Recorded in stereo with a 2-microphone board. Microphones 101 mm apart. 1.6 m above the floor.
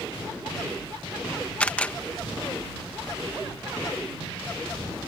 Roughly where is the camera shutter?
Centre.